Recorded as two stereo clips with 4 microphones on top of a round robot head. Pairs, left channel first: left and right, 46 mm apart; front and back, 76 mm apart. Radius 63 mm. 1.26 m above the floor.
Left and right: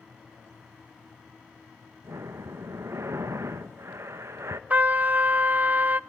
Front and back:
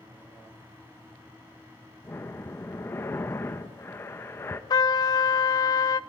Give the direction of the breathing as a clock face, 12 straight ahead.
2 o'clock.